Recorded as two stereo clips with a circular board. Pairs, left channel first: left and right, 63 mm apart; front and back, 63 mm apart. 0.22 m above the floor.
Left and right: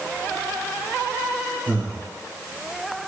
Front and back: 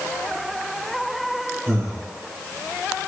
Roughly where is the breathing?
Behind right.